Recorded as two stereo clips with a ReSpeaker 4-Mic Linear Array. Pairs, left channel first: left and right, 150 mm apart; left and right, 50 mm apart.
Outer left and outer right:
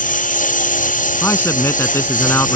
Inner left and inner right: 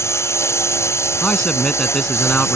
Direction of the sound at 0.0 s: 65° left (ahead or behind).